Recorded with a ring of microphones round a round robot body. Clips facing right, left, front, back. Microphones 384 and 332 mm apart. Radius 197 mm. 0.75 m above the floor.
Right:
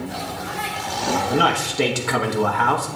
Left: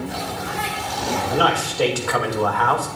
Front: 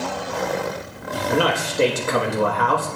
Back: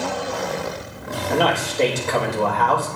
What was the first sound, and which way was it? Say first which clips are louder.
A man speaking: left 2 dB, even; 65° right.